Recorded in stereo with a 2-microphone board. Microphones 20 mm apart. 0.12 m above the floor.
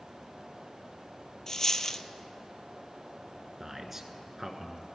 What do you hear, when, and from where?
1.5 s a dropped coin: 25° left (ahead or behind), 0.5 m
3.6 s a man speaking: 20° right (ahead or behind), 1.2 m